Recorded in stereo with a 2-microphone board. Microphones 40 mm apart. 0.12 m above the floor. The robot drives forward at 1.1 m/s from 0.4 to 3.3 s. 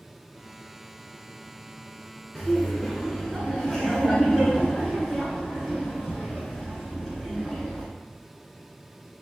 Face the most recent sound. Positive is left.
turn(degrees=10)  # may be behind; listen again after turning